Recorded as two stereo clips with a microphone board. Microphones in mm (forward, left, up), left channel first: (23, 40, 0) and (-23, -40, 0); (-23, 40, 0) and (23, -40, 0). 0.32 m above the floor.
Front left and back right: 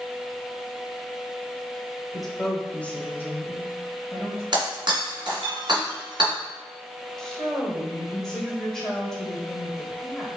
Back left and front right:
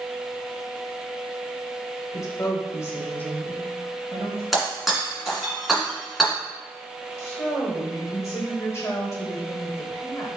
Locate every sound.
2.1 s a woman speaking: 150° left, 1.2 m; by 4.4 s 30° left, 1.4 m
4.5 s breaking glass: 150° right, 1.7 m
7.2 s a woman speaking: 140° left, 1.2 m